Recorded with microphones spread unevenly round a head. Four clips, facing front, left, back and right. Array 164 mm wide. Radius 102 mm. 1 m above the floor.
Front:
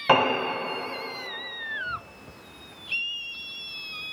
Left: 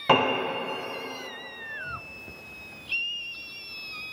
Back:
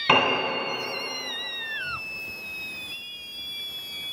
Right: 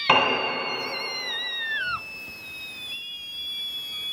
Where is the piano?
110° left, 1.3 m.